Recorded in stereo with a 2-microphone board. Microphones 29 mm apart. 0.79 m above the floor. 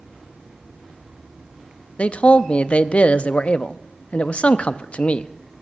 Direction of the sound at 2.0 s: 50° left (ahead or behind).